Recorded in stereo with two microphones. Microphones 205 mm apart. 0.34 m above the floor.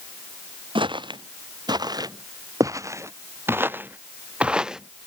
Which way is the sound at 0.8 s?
25° right (ahead or behind).